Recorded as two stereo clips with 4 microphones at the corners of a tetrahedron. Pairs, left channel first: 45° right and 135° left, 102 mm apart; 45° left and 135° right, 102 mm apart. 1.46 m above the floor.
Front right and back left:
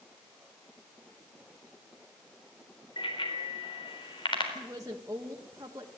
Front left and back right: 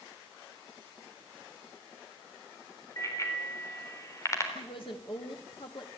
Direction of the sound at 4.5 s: 80° left.